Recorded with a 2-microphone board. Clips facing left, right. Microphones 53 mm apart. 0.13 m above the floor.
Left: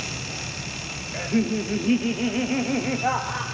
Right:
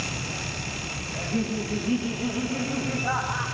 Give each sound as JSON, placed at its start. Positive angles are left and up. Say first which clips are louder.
{"t": 1.1, "sound": "laughter", "louder": "left 5 dB", "side_deg": 45, "distance_m": 2.5}